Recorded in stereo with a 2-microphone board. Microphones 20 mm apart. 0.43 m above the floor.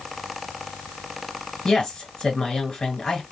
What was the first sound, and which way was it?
A woman speaking, 40° left (ahead or behind).